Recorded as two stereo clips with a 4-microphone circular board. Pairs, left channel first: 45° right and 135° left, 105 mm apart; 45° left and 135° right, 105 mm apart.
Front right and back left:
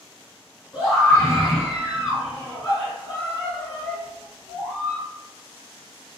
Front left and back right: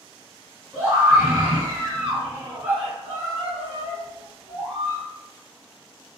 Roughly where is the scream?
Ahead right.